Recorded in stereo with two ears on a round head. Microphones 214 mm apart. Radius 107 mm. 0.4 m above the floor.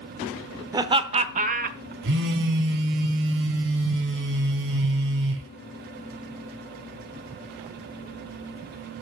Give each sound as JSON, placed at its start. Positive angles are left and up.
{"t": 0.7, "sound": "laughter", "side_deg": -15, "distance_m": 0.9}
{"t": 2.0, "sound": "a phone buzzing", "side_deg": -50, "distance_m": 1.8}